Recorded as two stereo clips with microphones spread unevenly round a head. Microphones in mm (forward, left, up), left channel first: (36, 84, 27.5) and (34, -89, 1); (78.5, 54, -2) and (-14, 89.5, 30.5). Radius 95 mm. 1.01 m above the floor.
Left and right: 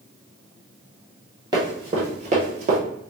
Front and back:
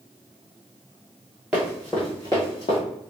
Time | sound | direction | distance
1.5 | running footsteps | 160° right | 1.2 m